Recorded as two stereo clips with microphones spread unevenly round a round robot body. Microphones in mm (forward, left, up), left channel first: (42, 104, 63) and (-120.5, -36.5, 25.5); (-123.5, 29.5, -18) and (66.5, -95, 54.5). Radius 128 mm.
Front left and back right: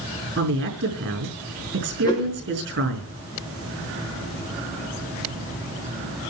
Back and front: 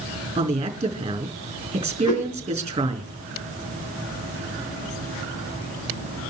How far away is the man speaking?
About 4.5 m.